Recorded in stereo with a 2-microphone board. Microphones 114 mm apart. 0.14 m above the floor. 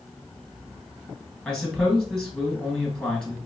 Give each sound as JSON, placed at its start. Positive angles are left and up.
{"t": 1.4, "sound": "a man speaking", "side_deg": 5, "distance_m": 1.8}